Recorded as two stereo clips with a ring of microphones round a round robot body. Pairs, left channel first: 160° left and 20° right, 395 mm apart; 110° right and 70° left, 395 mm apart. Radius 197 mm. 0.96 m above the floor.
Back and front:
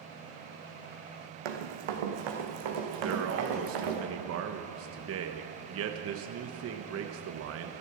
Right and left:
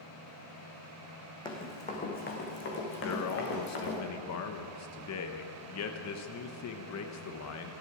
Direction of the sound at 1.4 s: 35° right.